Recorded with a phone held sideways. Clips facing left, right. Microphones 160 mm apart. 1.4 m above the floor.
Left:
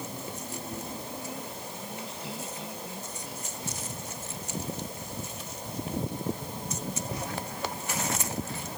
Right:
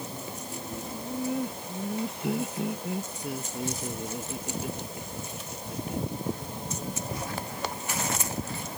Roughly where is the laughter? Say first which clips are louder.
Right 7 dB; right.